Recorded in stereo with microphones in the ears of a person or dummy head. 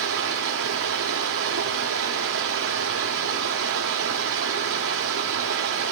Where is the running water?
70° right (ahead or behind), 1.6 m.